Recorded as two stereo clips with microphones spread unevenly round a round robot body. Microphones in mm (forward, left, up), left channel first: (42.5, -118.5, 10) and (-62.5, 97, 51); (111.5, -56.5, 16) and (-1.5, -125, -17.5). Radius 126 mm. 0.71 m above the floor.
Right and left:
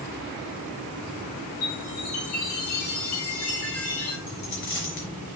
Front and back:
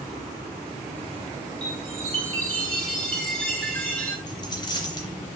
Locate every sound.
1.6 s a chime: 50° right, 5.5 m
4.3 s a dropped coin: 20° right, 3.5 m